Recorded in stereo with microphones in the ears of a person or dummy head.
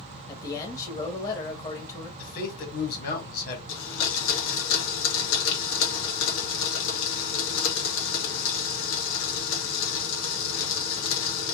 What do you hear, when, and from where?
0.3 s a man speaking: 20° left (ahead or behind), 1.8 m
2.2 s a man speaking: 55° left (ahead or behind), 3 m
3.7 s a blender: 75° left (ahead or behind), 1.9 m